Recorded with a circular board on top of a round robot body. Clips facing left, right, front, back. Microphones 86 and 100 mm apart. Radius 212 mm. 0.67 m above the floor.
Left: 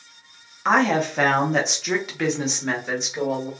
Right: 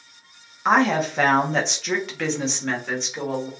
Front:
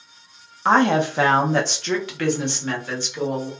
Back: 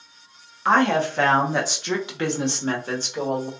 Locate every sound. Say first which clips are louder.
0.7 s a woman speaking: even, front 2 dB; 10° right, 1.1 m; by 3.5 s 165° left, 1.4 m